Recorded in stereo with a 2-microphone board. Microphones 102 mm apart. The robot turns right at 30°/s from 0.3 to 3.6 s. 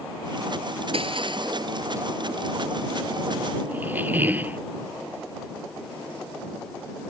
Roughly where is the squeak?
Centre.